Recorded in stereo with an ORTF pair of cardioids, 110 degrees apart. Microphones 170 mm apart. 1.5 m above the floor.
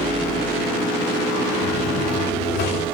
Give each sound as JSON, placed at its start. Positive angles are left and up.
{"t": 1.6, "sound": "a buzzer", "azimuth_deg": 65, "distance_m": 3.5}